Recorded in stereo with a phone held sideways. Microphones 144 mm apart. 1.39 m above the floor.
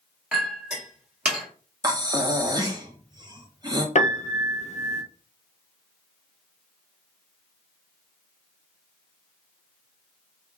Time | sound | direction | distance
0.3 | a clink | 5° right (ahead or behind) | 1.5 m
1.8 | breathing | 30° right (ahead or behind) | 0.7 m
4.0 | a piano | 55° left (ahead or behind) | 0.5 m